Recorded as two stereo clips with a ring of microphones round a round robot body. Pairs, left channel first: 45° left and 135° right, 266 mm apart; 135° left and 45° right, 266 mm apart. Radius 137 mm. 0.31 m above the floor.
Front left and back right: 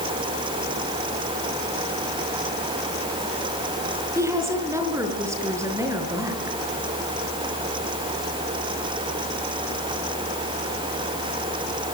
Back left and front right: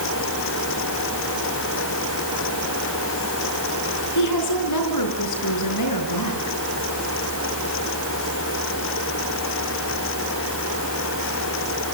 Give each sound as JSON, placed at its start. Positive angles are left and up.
{"t": 4.2, "sound": "a woman speaking", "azimuth_deg": 145, "distance_m": 5.0}